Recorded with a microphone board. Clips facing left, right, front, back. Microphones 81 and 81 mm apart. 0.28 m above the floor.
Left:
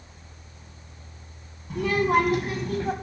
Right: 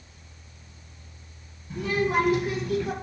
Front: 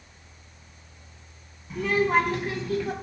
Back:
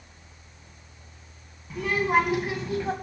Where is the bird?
I don't hear a bird.